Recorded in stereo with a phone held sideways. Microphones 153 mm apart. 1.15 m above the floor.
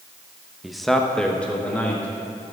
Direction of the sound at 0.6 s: 5° right (ahead or behind).